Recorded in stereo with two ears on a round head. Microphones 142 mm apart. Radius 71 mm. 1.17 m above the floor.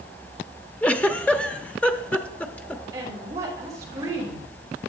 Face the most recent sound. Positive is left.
turn(degrees=-20)  # may be behind; listen again after turning